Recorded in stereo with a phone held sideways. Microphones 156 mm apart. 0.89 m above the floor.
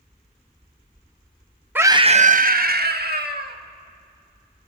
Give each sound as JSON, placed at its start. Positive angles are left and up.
{"t": 1.8, "sound": "a scream", "side_deg": -10, "distance_m": 0.7}